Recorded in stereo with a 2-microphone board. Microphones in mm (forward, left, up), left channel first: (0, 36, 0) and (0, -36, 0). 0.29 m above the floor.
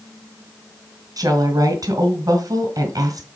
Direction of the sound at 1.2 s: 55° right (ahead or behind).